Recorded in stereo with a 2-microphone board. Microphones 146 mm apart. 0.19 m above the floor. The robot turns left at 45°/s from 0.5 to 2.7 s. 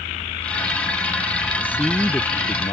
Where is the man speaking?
165° right; by 2.7 s 145° left.